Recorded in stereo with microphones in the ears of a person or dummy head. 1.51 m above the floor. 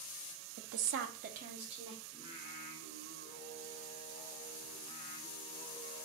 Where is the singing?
35° left (ahead or behind), 1.1 m.